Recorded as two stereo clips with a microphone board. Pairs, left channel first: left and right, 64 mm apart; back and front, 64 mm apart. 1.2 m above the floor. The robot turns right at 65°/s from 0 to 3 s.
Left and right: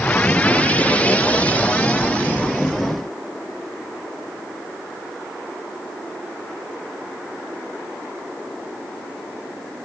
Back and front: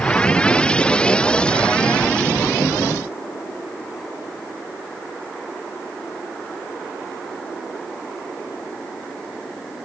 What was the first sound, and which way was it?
Only background noise.